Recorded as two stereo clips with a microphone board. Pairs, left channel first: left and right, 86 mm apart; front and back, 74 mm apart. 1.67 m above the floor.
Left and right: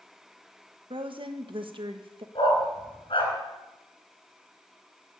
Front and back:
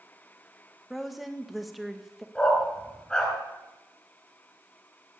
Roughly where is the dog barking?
Left.